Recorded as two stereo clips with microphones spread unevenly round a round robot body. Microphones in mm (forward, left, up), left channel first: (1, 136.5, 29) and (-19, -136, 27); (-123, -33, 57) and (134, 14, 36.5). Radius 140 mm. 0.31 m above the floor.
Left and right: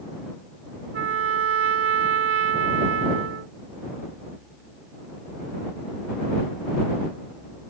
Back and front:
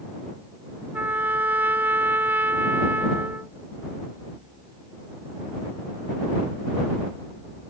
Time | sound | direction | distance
0.9 | a trumpet | 70° right | ?